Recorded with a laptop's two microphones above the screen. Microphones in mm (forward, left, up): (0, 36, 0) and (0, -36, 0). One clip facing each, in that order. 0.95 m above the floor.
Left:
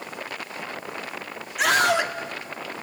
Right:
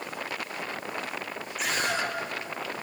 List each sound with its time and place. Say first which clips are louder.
1.6 s a scream: left 9 dB; 80° left, 1.8 m